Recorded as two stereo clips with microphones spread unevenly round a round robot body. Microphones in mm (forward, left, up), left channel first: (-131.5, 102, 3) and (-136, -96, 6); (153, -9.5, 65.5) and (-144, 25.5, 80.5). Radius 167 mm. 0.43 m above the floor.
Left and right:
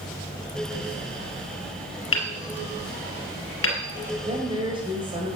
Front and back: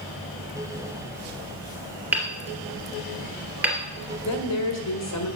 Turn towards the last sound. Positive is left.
turn(degrees=-20)